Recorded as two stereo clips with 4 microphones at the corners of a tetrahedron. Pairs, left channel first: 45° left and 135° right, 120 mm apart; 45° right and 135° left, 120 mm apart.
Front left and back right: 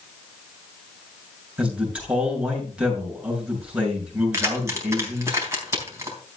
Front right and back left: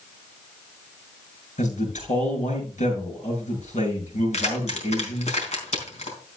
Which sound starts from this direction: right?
Keys jangling, at 4.3 s.